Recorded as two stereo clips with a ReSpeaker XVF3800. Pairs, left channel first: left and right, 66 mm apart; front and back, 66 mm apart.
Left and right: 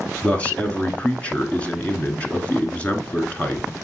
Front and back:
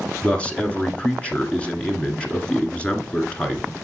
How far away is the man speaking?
About 1.2 m.